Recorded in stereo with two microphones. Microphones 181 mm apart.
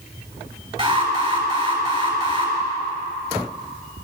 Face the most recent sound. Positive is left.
turn(degrees=-40)  # may be behind; listen again after turning